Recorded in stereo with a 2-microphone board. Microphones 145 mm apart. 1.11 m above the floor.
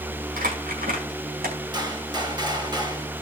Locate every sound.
0.4 s crumpling: 85° right, 5 m
1.7 s a gunshot: 30° right (ahead or behind), 3.5 m